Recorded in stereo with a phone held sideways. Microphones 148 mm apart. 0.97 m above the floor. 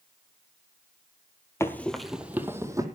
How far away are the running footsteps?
About 1.3 m.